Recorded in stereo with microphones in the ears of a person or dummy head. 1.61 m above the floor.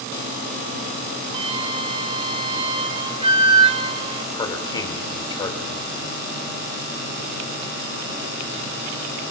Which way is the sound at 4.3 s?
25° left (ahead or behind).